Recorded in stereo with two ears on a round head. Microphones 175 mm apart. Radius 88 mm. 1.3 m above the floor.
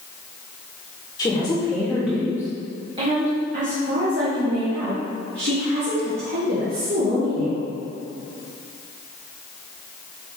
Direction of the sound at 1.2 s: 20° left (ahead or behind).